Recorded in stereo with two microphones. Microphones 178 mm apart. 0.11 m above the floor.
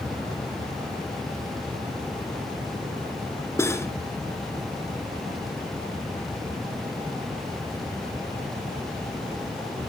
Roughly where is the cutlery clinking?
Centre.